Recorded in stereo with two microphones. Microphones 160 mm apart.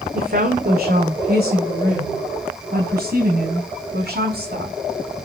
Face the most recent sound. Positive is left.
turn(degrees=-80)